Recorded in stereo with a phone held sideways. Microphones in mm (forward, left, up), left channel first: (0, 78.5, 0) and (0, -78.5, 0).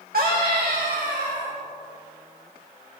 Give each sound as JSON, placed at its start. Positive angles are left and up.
{"t": 0.1, "sound": "a scream", "side_deg": -70, "distance_m": 1.1}